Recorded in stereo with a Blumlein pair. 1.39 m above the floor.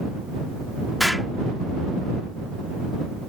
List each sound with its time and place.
1.0 s an explosion: 5° left